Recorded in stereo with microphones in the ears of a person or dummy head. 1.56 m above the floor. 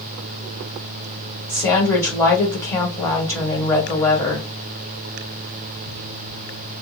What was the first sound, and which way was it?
A woman speaking, 15° left (ahead or behind).